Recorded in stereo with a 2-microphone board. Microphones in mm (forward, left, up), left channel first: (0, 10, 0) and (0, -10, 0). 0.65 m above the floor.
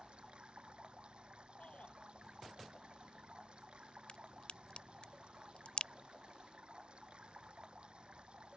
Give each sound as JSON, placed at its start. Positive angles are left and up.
{"t": 0.0, "sound": "running water", "side_deg": -55}
{"t": 1.6, "sound": "a shout", "side_deg": 80}
{"t": 4.1, "sound": "a crack", "side_deg": 60}